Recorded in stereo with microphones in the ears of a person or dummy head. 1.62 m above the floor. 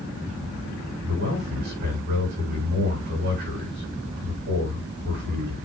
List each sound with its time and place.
1.0 s a man speaking: 55° right (ahead or behind), 8.5 m